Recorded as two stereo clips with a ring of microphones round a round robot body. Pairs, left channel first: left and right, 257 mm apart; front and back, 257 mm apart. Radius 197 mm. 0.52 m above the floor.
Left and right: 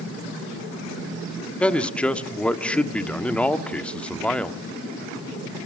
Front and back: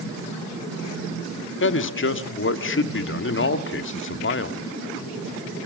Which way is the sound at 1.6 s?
5° left.